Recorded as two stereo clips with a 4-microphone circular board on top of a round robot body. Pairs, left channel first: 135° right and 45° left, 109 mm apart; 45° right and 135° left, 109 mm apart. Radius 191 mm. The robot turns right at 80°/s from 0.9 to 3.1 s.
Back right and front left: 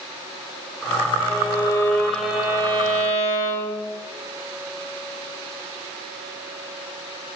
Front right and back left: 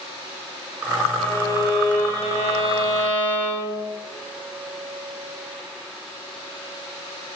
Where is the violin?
125° right, 3 m; by 3.9 s 30° left, 3 m.